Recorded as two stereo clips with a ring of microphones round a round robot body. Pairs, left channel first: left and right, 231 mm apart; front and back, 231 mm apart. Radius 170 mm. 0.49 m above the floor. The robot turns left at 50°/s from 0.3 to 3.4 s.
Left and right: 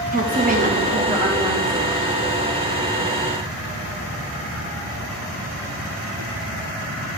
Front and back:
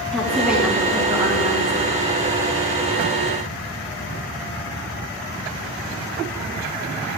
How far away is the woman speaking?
About 1.4 m.